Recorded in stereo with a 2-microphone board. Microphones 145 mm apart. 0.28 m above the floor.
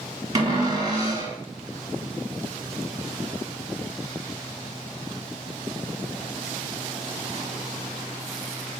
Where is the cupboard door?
30° right (ahead or behind), 1.1 m.